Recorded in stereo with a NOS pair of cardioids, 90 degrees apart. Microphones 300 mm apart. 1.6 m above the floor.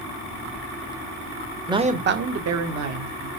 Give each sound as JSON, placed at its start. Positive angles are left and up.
{"t": 1.7, "sound": "a man speaking", "azimuth_deg": -10, "distance_m": 0.5}